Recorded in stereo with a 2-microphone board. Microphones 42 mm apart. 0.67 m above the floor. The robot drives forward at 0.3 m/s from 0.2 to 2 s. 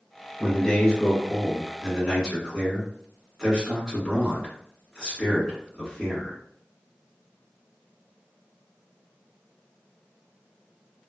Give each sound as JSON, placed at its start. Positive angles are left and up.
{"t": 0.4, "sound": "a man speaking", "side_deg": 10, "distance_m": 1.3}